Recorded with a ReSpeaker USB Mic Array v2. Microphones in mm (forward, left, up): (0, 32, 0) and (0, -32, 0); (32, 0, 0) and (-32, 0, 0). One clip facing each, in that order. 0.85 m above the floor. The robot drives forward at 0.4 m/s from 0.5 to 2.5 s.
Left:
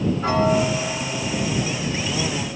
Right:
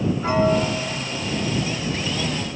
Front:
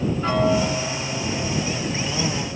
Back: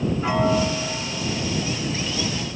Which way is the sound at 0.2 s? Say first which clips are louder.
Even, front 1 dB; 105° left.